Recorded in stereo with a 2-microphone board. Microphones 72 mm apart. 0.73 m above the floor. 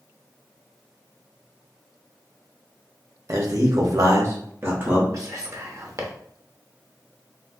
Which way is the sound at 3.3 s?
50° right (ahead or behind).